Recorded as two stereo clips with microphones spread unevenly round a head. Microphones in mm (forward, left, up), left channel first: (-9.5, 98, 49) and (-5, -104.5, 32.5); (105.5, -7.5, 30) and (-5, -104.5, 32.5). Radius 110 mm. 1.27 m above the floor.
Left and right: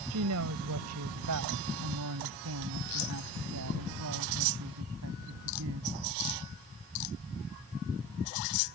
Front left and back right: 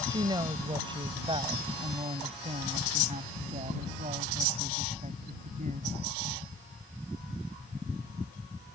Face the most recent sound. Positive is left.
turn(degrees=-100)